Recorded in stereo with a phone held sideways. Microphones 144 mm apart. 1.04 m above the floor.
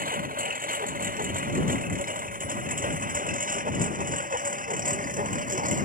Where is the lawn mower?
70° right (ahead or behind); by 5.8 s 60° right (ahead or behind).